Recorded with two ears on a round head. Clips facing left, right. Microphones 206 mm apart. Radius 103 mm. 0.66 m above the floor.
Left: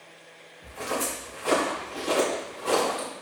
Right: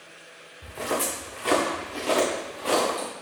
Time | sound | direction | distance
0.6 | footsteps | 50° right (ahead or behind) | 3.5 m